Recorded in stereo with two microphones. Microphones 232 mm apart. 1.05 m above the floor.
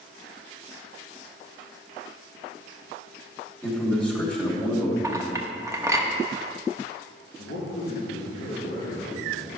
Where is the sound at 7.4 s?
65° left (ahead or behind), 2.5 m.